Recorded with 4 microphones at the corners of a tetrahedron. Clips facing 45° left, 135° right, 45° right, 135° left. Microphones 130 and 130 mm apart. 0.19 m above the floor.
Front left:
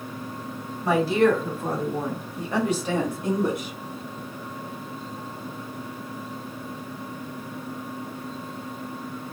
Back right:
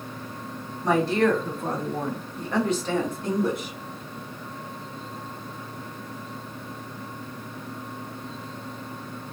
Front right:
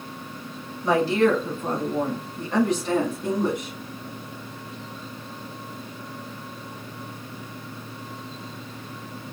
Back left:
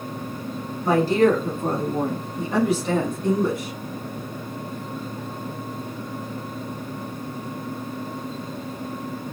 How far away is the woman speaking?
About 1.4 m.